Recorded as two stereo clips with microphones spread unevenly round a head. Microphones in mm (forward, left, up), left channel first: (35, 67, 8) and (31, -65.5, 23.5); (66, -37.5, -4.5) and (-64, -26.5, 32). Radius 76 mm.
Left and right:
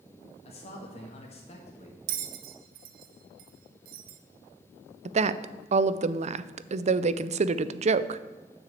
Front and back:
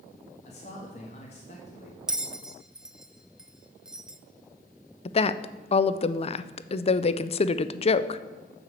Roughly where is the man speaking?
Ahead left.